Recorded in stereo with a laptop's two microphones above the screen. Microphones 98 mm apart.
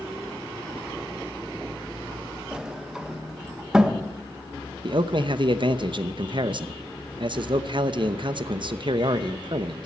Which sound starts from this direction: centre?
A sliding door, at 2.5 s.